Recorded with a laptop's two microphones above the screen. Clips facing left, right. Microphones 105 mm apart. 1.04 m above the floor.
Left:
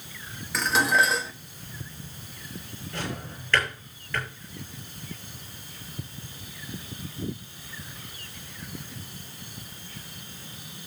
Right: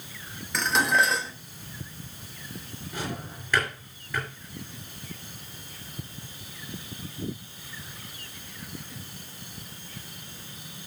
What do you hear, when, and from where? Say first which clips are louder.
0.5 s dishes clattering: left 1 dB; centre (ahead or behind), 0.8 m
2.9 s a drawer: even; 15° right (ahead or behind), 6 m